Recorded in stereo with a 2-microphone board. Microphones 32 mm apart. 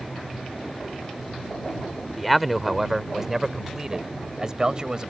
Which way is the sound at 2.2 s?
Centre (ahead or behind).